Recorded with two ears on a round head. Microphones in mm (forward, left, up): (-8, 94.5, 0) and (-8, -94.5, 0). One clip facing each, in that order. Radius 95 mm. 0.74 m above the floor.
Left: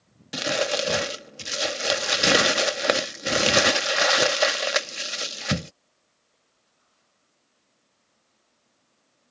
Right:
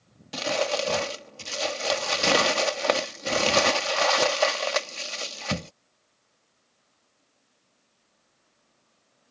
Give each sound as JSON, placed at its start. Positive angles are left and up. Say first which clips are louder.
{"t": 0.3, "sound": "crumpling", "louder": "left 1 dB", "side_deg": 15}